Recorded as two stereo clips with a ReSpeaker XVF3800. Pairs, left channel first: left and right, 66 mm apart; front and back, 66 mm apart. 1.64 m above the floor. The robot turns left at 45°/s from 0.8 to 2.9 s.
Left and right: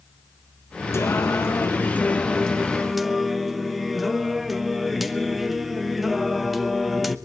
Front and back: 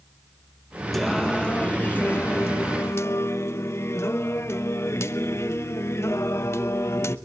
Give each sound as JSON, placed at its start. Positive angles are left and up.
{"t": 0.9, "sound": "singing", "azimuth_deg": 85, "distance_m": 1.0}